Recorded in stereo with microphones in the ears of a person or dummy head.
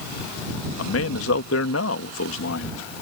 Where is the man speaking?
65° left (ahead or behind).